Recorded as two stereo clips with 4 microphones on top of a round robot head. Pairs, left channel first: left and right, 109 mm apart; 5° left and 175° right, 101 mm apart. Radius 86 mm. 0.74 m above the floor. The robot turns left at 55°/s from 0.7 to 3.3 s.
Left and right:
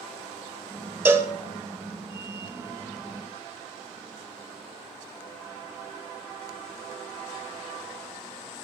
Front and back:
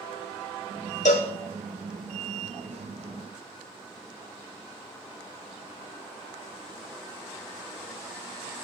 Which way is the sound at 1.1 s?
20° right.